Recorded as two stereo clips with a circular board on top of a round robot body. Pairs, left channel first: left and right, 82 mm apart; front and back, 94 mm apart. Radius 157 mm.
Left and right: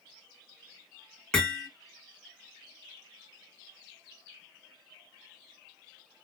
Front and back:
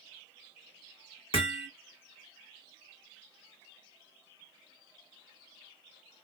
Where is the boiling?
No boiling in this recording.